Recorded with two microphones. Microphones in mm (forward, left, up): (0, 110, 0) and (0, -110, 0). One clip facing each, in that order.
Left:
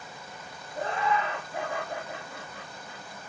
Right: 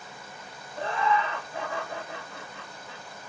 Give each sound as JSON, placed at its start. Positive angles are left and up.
{"t": 0.8, "sound": "laughter", "side_deg": 50, "distance_m": 1.5}